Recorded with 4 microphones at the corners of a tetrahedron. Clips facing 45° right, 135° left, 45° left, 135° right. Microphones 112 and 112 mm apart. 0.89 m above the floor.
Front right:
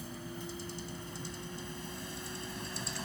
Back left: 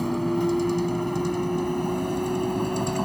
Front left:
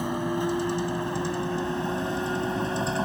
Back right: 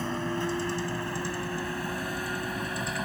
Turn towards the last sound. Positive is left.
turn(degrees=105)